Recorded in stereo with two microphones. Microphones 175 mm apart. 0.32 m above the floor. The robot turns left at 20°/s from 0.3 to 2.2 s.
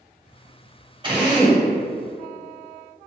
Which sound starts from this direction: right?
A drill, at 1.0 s.